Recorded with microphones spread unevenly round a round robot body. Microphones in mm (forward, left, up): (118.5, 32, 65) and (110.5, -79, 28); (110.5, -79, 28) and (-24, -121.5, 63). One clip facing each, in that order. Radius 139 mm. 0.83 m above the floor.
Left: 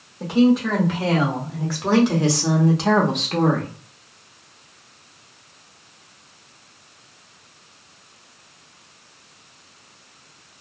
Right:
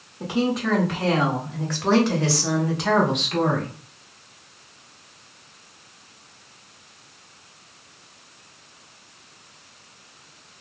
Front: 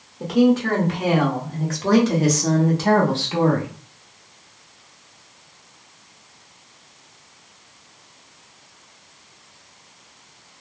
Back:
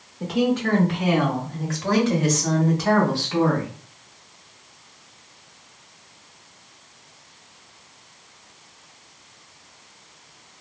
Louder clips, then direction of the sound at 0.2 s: Left 7 dB, front 5 dB; 15° right.